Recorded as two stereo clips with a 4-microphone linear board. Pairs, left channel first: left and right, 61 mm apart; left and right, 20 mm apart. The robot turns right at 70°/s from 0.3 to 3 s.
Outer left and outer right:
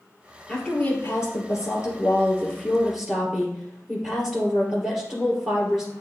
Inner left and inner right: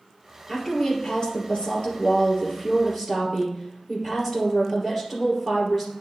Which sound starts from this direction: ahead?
A woman speaking, at 0.5 s.